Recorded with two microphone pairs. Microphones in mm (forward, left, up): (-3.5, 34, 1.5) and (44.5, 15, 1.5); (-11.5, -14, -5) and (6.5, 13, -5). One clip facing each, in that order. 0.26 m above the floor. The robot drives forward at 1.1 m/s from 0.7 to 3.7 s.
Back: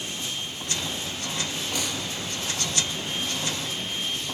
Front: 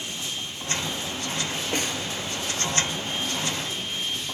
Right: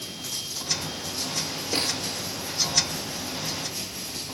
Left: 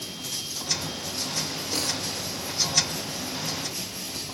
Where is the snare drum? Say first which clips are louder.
Front 4 dB, right 3 dB; 65° right, 2.0 m; by 2.0 s 75° right, 1.9 m.